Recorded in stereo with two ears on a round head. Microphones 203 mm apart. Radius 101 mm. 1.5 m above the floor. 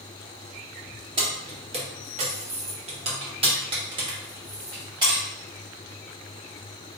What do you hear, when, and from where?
1.2 s keys jangling: 20° right (ahead or behind), 0.9 m; by 5.2 s 15° right (ahead or behind), 1.8 m